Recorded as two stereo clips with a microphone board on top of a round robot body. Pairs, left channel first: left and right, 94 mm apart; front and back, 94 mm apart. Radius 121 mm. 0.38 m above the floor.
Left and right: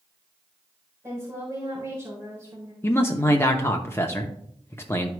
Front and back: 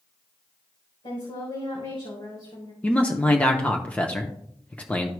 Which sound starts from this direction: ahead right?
A woman speaking, at 1.0 s.